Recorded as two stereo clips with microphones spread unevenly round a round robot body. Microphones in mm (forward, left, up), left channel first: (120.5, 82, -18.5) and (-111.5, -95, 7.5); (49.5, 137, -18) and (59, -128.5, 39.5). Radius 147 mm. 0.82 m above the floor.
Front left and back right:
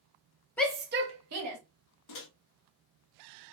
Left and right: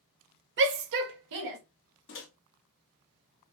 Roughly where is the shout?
Ahead right.